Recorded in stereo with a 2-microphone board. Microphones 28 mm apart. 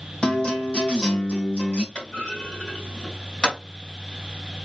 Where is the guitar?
35° left (ahead or behind), 2 m.